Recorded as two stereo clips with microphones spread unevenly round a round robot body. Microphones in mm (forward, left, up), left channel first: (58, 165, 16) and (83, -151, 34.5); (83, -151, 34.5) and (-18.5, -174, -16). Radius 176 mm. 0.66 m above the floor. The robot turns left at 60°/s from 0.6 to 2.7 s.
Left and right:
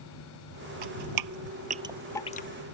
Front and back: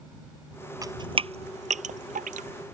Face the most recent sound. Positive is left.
turn(degrees=145)